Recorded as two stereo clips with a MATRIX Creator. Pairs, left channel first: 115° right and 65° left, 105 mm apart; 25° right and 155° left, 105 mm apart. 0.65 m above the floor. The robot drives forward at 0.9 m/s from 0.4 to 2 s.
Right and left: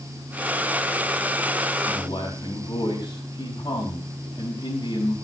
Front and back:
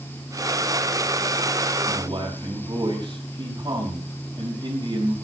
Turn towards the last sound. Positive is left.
turn(degrees=-155)